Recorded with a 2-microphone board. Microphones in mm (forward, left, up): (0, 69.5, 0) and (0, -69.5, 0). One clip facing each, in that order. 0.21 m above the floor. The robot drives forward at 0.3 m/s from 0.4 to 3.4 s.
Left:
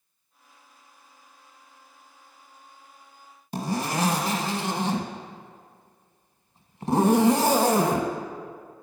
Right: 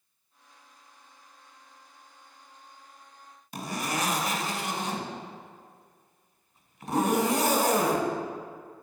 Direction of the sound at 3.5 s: 35° left (ahead or behind).